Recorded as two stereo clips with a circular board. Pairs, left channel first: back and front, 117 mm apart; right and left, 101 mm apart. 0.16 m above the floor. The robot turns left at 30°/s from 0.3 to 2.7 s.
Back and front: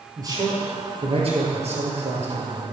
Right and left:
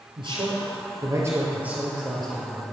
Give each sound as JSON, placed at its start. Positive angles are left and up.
{"t": 0.2, "sound": "a man speaking", "azimuth_deg": 55, "distance_m": 3.0}